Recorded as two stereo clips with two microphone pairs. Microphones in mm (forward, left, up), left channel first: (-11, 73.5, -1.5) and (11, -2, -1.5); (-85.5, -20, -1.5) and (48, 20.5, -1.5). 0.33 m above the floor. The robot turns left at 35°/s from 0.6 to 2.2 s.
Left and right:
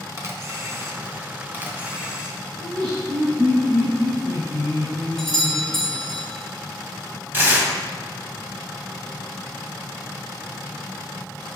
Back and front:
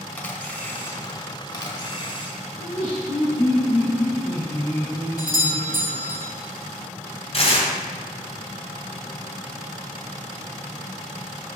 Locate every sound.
0.2 s a camera shutter: 95° right, 1.5 m; by 2.4 s 150° right, 1.5 m
2.6 s laughter: 150° right, 3.5 m
5.2 s a doorbell: straight behind, 1.4 m
7.3 s tearing paper: 135° right, 2.0 m